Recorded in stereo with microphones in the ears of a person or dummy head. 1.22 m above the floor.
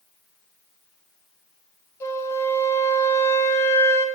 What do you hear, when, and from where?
2.0 s a flute: 15° left (ahead or behind), 1.0 m